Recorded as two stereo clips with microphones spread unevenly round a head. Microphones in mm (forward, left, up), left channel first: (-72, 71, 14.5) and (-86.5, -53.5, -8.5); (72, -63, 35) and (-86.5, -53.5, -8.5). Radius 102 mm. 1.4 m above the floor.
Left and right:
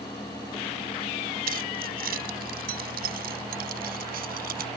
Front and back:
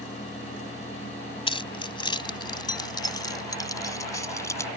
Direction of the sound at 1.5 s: 60° right.